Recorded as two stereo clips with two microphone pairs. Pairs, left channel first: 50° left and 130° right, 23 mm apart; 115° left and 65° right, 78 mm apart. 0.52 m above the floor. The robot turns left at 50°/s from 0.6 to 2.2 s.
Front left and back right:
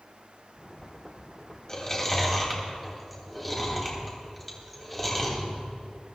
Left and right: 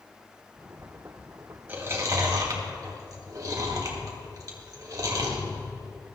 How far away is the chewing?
About 3 m.